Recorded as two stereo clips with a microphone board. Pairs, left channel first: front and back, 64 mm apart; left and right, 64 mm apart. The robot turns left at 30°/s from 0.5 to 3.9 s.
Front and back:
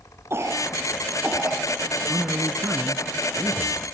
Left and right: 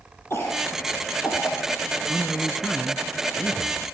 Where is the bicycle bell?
No bicycle bell in this recording.